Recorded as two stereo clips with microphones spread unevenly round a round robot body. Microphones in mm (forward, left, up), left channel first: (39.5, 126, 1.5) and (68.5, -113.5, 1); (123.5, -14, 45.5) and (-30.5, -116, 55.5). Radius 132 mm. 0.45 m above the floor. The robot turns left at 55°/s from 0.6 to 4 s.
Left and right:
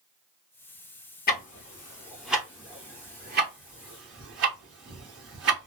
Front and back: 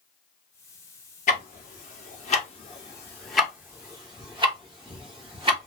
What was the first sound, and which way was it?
Ticking, 60° left.